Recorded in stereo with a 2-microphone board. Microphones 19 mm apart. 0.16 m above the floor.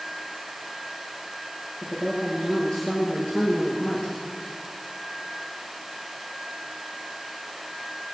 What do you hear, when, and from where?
1.8 s a woman speaking: 45° left (ahead or behind), 4 m; by 4.2 s 40° left (ahead or behind), 2.5 m